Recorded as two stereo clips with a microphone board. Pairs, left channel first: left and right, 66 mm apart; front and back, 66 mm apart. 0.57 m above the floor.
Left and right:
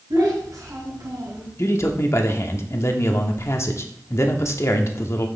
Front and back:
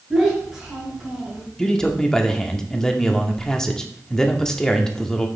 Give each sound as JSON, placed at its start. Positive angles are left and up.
{"t": 0.1, "sound": "a child speaking", "azimuth_deg": -105, "distance_m": 4.0}
{"t": 1.6, "sound": "a man speaking", "azimuth_deg": 75, "distance_m": 0.9}